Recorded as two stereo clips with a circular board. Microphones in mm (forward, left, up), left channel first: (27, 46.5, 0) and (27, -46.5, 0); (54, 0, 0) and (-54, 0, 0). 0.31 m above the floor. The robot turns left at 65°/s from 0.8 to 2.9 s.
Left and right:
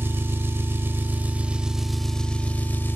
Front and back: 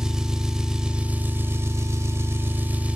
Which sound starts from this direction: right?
An engine running, at 0.0 s.